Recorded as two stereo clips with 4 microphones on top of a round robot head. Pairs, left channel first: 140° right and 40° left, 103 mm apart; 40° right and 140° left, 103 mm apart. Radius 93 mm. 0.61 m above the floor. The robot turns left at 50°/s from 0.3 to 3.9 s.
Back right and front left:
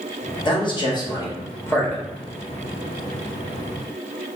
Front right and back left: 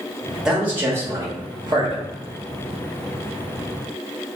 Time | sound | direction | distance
0.5 | a man speaking | 135° right | 1.3 m